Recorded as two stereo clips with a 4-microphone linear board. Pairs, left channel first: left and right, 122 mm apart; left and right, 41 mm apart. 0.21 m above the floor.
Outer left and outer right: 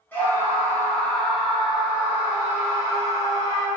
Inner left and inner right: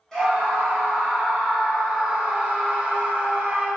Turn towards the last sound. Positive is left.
turn(degrees=-30)  # may be behind; listen again after turning